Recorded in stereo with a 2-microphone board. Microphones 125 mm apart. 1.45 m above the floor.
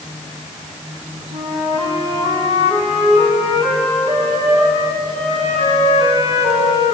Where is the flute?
65° right (ahead or behind), 8 m.